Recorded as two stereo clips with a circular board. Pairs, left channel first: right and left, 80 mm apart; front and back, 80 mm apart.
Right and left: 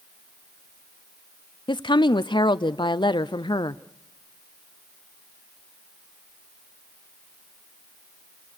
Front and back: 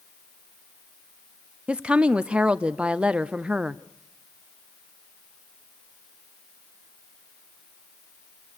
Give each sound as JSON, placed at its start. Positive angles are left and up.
{"t": 1.7, "sound": "a woman speaking", "azimuth_deg": -105, "distance_m": 0.6}